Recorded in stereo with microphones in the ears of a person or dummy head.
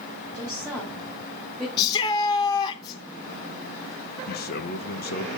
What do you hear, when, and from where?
0.3 s a woman speaking: 5° right (ahead or behind), 4.5 m; by 1.7 s centre (ahead or behind), 3 m
1.8 s a shout: 25° left (ahead or behind), 1.1 m
4.3 s a man speaking: 50° left (ahead or behind), 1.3 m